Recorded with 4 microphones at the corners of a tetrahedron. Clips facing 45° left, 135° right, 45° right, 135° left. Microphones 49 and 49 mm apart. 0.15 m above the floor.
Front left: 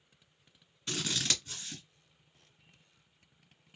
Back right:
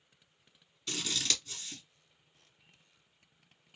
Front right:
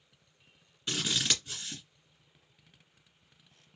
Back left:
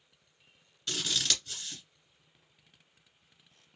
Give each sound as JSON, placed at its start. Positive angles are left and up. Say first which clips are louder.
{"t": 0.9, "sound": "scissors", "louder": "front left 1 dB, front right 1 dB", "azimuth_deg": 5, "distance_m": 1.7}